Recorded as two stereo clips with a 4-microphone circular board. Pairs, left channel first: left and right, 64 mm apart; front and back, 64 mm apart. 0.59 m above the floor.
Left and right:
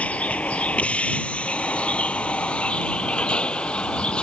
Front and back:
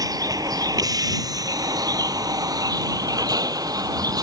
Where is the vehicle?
160° left; by 4.2 s 165° left.